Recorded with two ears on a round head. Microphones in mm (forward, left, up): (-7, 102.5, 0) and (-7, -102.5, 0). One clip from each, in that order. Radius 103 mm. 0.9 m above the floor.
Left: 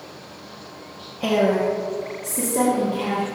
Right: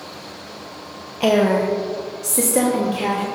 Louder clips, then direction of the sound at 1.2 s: Right 3 dB; 50° right (ahead or behind).